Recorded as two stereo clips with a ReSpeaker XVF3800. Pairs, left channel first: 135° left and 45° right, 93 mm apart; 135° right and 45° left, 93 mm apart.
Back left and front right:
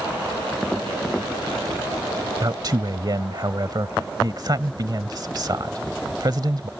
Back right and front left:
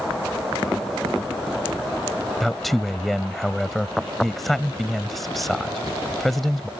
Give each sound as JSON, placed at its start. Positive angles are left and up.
{"t": 2.4, "sound": "a man speaking", "azimuth_deg": -45}